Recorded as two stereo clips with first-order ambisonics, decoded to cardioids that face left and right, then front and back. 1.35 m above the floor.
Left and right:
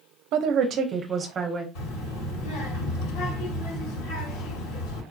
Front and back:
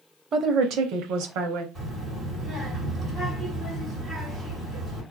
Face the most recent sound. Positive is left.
turn(degrees=110)